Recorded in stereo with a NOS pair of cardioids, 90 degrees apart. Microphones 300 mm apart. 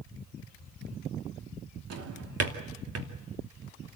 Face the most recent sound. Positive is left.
turn(degrees=-55)